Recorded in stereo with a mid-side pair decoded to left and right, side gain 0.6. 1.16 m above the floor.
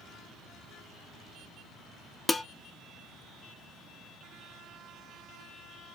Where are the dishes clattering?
15° left, 0.6 m.